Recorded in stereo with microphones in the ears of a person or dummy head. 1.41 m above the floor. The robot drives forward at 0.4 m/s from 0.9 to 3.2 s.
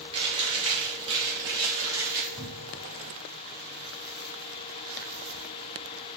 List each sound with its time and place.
0.1 s chewing: 30° right (ahead or behind), 0.7 m; by 2.2 s 15° right (ahead or behind), 1.1 m
2.3 s a cupboard door: 30° right (ahead or behind), 1.6 m; by 2.8 s 25° right (ahead or behind), 1.7 m